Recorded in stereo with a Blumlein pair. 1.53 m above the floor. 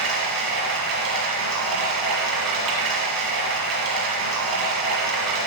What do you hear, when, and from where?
0.0 s running water: 35° right, 1.3 m